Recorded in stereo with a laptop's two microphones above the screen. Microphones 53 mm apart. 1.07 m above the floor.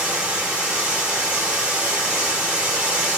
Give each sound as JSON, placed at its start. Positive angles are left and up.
{"t": 0.0, "sound": "running water", "side_deg": -20, "distance_m": 1.2}